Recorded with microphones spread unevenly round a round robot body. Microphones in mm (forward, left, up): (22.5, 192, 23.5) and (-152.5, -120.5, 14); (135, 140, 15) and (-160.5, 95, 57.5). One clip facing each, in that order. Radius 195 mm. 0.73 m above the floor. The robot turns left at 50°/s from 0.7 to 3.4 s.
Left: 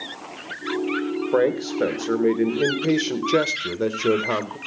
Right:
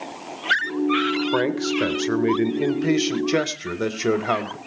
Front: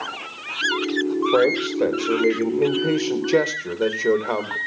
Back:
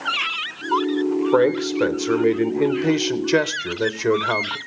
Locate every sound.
1.3 s a man speaking: 95° right, 1.1 m; by 4.6 s 160° left, 1.1 m